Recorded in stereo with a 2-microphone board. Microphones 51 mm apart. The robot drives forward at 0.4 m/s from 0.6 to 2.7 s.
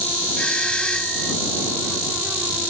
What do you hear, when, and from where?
0.4 s a doorbell: 20° left (ahead or behind); by 1.3 s 15° left (ahead or behind)